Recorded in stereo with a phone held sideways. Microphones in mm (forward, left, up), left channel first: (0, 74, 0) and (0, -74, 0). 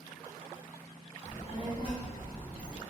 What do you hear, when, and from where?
1.2 s a child speaking: 50° left (ahead or behind), 0.7 m; by 2.8 s 25° left (ahead or behind), 1.4 m